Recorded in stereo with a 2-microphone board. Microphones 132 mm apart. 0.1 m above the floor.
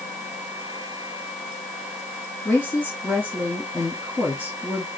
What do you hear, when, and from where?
2.5 s a woman speaking: 15° left (ahead or behind), 3 m